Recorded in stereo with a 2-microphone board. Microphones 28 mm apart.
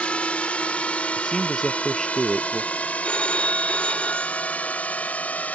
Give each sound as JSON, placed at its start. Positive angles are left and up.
{"t": 0.0, "sound": "a drone", "side_deg": 50}
{"t": 1.2, "sound": "a man speaking", "side_deg": 10}
{"t": 3.0, "sound": "a phone ringing", "side_deg": 55}